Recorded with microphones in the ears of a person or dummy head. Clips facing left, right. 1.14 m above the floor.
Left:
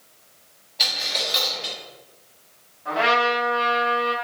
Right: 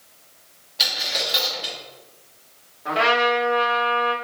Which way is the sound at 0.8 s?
10° right (ahead or behind).